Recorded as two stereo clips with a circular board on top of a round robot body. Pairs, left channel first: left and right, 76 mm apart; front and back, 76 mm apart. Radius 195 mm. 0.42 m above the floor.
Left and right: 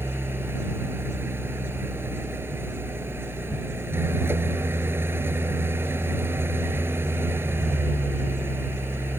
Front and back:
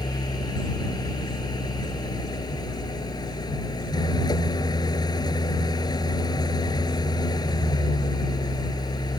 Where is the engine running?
30° right.